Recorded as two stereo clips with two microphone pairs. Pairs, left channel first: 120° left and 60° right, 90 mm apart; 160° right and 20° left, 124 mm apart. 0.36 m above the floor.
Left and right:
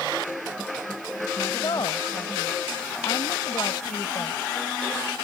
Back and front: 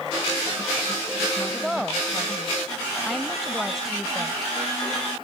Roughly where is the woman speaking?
Left.